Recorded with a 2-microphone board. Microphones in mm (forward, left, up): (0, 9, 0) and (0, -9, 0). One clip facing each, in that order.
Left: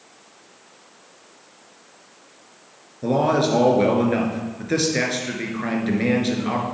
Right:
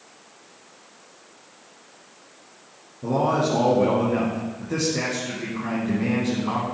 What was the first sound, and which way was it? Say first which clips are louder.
A man speaking: left 3 dB; 50° left (ahead or behind).